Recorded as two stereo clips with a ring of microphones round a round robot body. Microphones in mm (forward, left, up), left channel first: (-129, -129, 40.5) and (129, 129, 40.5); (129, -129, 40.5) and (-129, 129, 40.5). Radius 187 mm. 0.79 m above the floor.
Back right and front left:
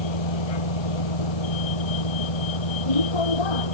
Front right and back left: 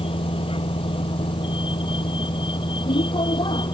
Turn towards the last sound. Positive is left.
turn(degrees=-125)